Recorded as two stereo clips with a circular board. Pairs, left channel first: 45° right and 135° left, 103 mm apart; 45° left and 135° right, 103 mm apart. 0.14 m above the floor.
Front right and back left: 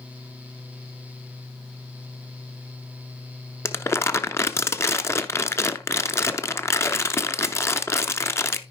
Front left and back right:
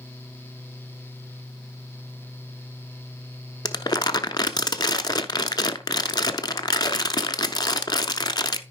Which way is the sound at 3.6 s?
10° left.